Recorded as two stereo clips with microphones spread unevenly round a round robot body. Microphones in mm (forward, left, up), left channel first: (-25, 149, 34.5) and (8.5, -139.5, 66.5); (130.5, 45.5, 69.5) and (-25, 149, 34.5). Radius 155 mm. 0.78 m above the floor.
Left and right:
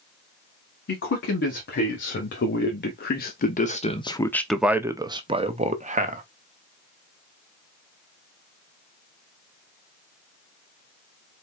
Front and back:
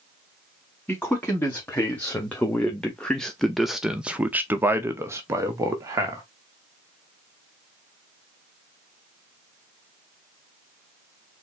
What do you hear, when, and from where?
0.9 s a man speaking: 50° left, 2.0 m; by 6.2 s 145° right, 1.2 m